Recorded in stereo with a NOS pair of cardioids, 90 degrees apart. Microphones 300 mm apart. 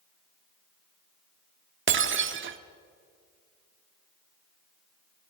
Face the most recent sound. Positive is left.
turn(degrees=-45)